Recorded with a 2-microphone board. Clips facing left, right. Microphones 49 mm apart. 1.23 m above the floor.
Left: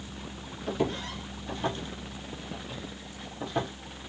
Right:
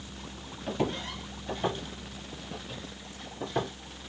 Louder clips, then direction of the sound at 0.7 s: Left 1 dB; 15° right (ahead or behind).